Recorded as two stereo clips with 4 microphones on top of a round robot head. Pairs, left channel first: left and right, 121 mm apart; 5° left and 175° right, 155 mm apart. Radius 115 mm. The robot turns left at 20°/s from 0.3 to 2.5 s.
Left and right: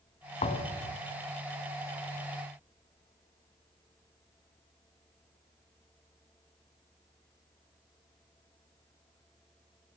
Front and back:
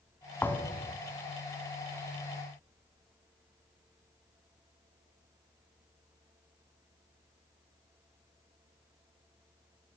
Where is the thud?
80° left, 1.5 m; by 1.0 s 70° left, 1.5 m.